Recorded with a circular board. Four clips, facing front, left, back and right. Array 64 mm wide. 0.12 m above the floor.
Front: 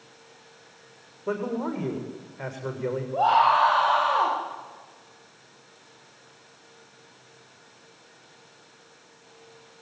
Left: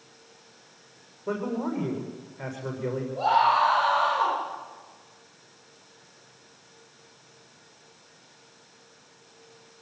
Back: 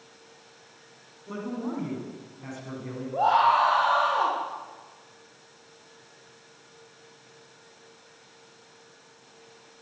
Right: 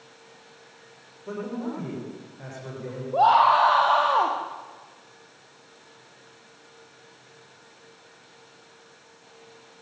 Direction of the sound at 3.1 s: 85° right.